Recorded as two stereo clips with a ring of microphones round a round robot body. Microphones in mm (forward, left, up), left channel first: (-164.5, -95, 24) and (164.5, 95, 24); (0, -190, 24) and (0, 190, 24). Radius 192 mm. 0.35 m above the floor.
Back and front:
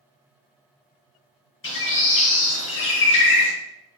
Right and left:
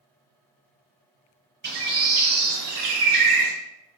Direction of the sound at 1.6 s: 155° left.